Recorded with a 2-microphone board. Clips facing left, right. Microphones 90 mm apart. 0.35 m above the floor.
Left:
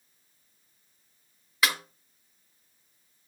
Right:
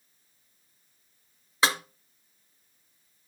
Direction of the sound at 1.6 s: 25° right (ahead or behind).